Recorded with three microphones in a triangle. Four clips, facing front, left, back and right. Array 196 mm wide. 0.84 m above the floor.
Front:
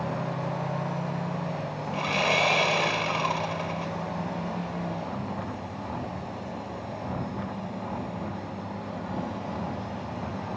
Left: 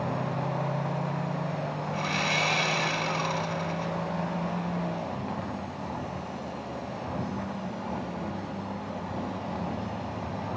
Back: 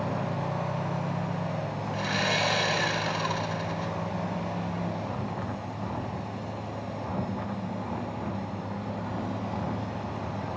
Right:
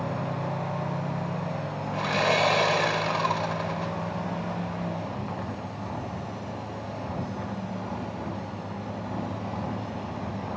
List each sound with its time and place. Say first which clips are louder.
1.9 s sawing: right 7 dB, front 3 dB; 70° right, 1.3 m